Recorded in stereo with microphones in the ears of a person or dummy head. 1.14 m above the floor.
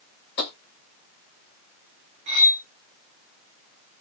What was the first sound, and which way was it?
Tapping, 60° left (ahead or behind).